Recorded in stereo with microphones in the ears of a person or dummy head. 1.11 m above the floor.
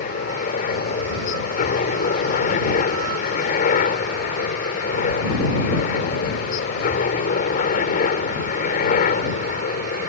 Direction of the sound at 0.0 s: 45° left (ahead or behind).